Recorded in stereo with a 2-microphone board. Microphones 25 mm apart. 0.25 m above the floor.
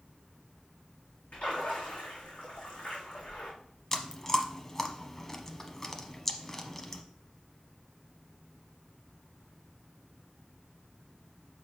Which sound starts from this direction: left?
A splash, at 1.3 s.